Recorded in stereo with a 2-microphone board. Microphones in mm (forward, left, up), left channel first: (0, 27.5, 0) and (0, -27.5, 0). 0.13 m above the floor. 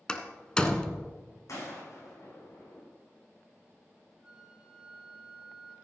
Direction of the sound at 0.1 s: 15° left (ahead or behind).